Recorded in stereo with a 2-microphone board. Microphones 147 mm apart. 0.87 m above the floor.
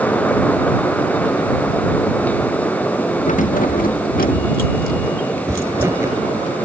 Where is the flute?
I don't hear a flute.